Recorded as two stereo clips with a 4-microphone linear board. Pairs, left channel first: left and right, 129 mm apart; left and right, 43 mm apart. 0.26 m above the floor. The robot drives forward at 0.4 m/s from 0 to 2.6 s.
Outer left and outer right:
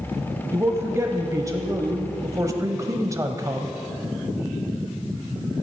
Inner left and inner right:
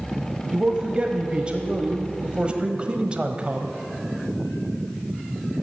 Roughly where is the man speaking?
Right.